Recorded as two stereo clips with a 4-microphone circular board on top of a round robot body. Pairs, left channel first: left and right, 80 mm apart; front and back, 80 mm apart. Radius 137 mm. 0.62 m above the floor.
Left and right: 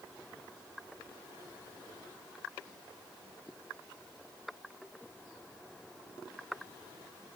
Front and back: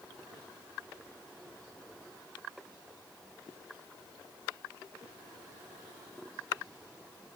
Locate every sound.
Only background noise.